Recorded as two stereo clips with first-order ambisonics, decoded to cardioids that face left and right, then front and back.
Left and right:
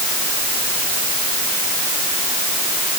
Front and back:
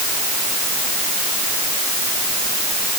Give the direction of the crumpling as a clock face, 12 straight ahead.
No crumpling in this recording.